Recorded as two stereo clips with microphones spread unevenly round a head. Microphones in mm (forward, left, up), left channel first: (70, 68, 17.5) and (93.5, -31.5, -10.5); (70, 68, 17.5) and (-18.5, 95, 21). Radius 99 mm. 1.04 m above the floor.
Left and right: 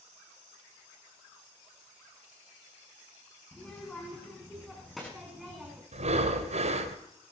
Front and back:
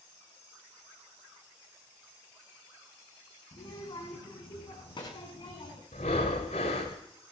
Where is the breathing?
65° right, 2.5 m.